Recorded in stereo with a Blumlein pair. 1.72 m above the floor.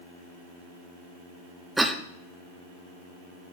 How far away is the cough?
About 0.9 m.